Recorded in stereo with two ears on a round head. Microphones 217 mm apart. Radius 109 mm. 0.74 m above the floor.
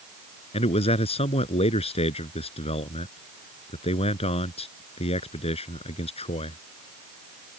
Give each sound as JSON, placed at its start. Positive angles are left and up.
{"t": 0.5, "sound": "a man speaking", "side_deg": 25}